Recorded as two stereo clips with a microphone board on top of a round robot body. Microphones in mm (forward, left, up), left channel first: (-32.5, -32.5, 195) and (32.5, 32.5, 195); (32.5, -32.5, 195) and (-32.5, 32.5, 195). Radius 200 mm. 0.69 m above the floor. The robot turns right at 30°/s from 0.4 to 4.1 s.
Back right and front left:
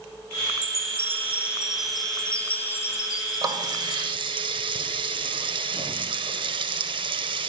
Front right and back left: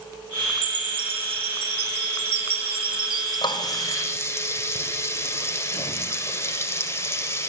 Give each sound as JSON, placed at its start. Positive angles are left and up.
{"t": 0.6, "sound": "a chime", "azimuth_deg": 95, "distance_m": 1.3}
{"t": 3.4, "sound": "a running tap", "azimuth_deg": -5, "distance_m": 2.5}